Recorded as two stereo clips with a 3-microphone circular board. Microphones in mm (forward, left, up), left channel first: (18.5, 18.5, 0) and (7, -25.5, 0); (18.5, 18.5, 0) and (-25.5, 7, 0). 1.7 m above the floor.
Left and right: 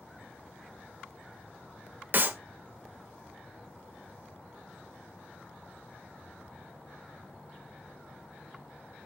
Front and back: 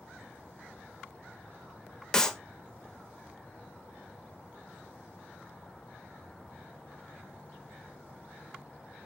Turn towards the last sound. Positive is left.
turn(degrees=-60)